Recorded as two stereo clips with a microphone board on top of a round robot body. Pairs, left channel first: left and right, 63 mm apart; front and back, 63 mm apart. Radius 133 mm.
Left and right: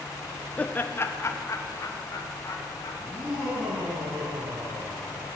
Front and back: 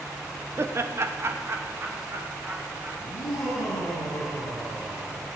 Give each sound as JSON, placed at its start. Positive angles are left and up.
{"t": 0.6, "sound": "laughter", "azimuth_deg": 150, "distance_m": 1.1}
{"t": 3.0, "sound": "laughter", "azimuth_deg": -20, "distance_m": 9.0}